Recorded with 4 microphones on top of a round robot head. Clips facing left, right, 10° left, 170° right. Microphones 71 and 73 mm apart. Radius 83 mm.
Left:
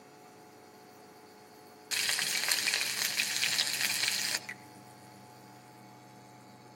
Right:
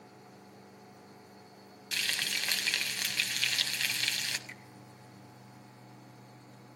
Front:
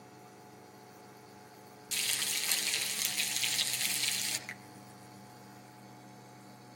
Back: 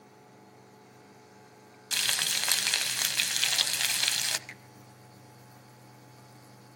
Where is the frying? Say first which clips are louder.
Even, back 6 dB; 160° left, 0.6 m.